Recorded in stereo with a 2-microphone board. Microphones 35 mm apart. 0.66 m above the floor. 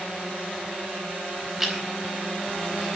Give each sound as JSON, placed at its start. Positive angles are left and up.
{"t": 1.6, "sound": "chewing", "side_deg": -5, "distance_m": 4.5}